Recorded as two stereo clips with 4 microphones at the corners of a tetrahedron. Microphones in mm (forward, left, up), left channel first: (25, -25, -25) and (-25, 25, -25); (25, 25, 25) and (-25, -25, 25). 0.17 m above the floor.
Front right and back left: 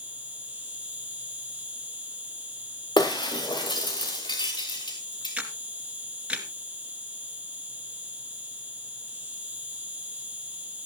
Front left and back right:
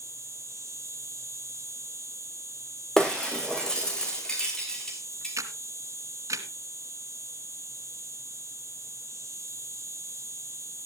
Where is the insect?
155° right, 2.5 m.